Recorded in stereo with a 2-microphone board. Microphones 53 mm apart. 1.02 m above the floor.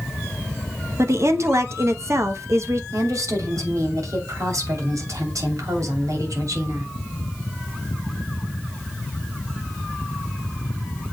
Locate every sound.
1.0 s a woman speaking: 60° right (ahead or behind), 1.0 m
2.9 s a woman speaking: 75° right (ahead or behind), 2.5 m